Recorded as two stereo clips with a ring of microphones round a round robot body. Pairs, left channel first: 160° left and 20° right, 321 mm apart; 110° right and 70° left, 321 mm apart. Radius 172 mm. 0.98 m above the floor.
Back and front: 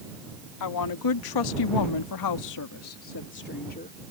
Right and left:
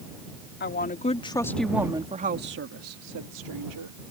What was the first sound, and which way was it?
A woman speaking, 170° right.